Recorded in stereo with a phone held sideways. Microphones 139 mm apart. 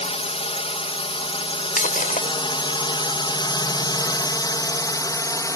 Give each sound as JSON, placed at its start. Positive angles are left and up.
{"t": 0.0, "sound": "a drone", "side_deg": 50}
{"t": 1.8, "sound": "breaking glass", "side_deg": 80}